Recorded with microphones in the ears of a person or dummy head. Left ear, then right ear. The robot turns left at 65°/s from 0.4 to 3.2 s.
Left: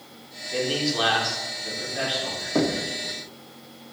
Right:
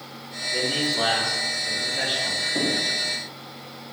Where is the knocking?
65° left (ahead or behind), 0.6 m; by 2.9 s 50° left (ahead or behind), 0.6 m.